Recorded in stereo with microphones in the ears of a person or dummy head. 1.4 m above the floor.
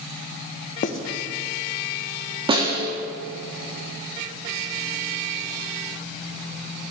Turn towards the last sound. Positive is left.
turn(degrees=-35)  # may be behind; listen again after turning